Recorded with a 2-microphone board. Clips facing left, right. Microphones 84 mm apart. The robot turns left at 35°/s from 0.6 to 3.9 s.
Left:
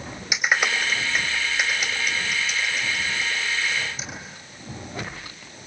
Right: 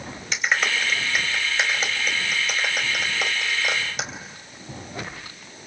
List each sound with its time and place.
0.3 s a clap: 10° left (ahead or behind), 3.5 m; by 4.1 s 70° right (ahead or behind), 3.5 m